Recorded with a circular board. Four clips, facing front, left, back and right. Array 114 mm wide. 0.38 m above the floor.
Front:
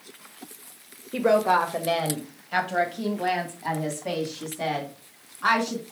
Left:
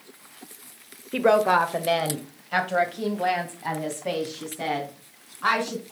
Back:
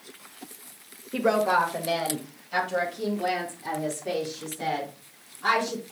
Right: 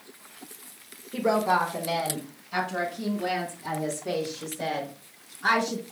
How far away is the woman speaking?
About 0.9 m.